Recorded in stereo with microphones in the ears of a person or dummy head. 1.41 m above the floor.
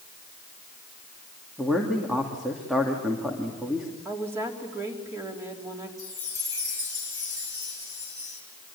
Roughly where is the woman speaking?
Centre.